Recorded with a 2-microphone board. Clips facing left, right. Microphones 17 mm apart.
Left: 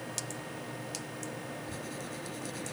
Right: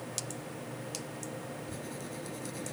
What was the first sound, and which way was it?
Writing, 15° left (ahead or behind).